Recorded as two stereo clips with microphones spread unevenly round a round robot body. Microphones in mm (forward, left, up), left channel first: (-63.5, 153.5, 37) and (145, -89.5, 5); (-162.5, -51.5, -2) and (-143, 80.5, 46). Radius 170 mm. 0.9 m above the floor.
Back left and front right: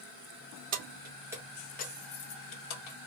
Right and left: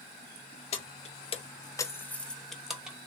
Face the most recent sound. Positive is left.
turn(degrees=170)